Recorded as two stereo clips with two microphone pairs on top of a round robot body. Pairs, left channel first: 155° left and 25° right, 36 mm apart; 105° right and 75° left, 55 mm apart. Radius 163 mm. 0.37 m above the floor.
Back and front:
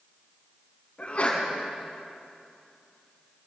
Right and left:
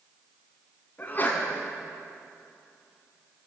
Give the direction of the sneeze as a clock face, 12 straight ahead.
5 o'clock.